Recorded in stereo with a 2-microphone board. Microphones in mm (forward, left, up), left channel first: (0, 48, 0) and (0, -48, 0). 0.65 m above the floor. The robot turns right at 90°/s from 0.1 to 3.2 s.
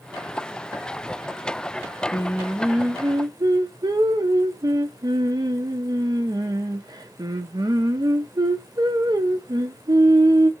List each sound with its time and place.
2.1 s singing: 145° left, 0.5 m; by 10.5 s 120° right, 0.5 m